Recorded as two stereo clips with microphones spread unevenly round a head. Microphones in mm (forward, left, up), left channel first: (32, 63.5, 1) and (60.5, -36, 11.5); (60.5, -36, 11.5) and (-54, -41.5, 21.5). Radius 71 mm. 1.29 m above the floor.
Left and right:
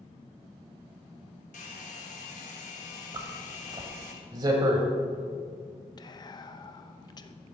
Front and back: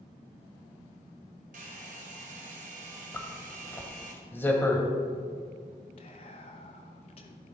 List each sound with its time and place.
1.5 s a hair dryer: 145° left, 1.2 m
3.1 s a zipper: 65° right, 1.4 m
6.0 s whispering: 55° left, 1.0 m